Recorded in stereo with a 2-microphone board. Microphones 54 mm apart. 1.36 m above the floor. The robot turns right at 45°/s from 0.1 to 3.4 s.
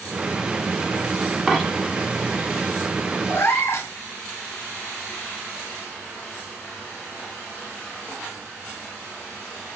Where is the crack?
I don't hear a crack.